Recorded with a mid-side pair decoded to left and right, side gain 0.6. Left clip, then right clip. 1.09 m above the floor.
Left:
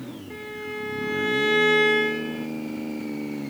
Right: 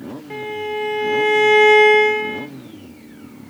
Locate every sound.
0.3 s a violin: 50° right, 2 m